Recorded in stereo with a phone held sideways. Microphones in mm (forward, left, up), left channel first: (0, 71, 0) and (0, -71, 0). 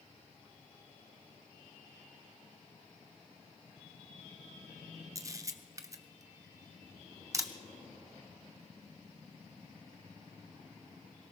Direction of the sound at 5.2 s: 25° right (ahead or behind).